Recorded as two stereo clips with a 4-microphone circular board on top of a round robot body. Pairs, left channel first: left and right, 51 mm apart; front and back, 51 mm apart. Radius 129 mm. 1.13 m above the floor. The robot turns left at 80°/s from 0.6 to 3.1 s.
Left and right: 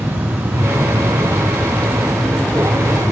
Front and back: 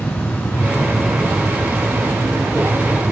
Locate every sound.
0.0 s an insect: 55° right, 2 m; by 3.1 s 105° left, 2 m